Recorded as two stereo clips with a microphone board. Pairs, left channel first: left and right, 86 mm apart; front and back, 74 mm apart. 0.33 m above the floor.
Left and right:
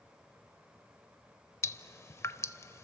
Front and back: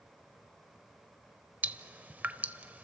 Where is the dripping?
125° left, 0.6 m.